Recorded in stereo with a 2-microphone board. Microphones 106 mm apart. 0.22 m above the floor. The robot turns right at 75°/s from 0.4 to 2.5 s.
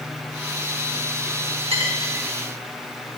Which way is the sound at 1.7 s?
65° right (ahead or behind).